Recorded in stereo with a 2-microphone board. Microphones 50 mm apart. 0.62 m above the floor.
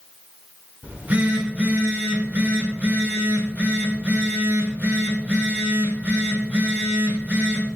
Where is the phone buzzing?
35° right (ahead or behind), 4.5 m.